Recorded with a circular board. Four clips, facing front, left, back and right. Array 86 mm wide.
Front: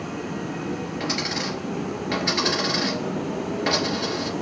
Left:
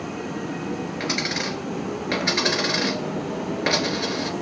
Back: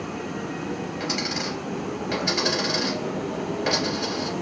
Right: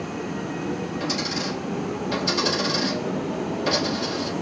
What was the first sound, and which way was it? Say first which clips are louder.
A dropped coin: even, front 1 dB; 75° left.